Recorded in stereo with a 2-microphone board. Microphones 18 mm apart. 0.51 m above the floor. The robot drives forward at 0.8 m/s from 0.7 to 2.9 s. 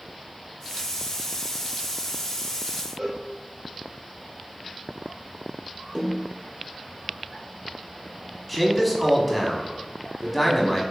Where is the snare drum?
55° right (ahead or behind), 1.2 m.